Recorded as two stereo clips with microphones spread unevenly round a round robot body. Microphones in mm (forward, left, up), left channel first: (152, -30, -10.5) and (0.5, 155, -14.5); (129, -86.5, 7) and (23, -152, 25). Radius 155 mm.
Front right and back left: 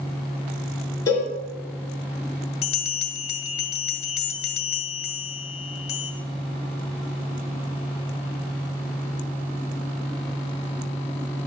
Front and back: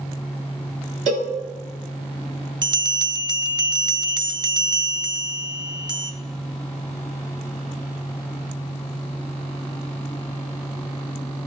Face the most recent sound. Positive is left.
turn(degrees=-95)